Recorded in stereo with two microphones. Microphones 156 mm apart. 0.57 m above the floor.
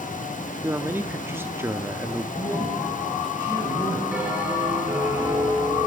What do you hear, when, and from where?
0.6 s a man speaking: 15° right (ahead or behind), 1.2 m
2.3 s a man speaking: 10° left (ahead or behind), 8 m
4.1 s a bell: 10° right (ahead or behind), 8.5 m